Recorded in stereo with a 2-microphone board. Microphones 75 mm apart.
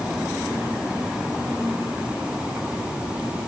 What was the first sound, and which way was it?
Only background noise.